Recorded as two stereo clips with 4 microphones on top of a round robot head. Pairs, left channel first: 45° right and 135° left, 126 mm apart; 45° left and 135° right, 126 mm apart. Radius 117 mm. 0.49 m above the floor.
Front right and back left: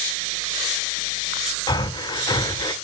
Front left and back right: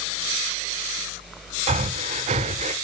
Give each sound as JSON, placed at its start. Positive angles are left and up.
{"t": 1.7, "sound": "breathing", "azimuth_deg": -105, "distance_m": 0.9}